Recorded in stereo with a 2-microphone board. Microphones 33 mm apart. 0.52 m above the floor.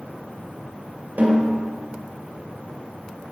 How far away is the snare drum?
About 2.5 m.